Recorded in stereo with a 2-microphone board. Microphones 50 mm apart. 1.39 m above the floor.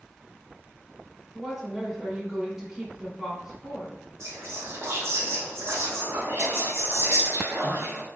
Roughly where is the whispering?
Right.